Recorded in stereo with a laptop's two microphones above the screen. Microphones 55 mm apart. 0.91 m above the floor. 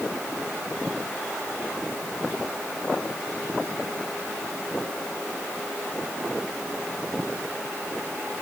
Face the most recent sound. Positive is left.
No sound to turn to.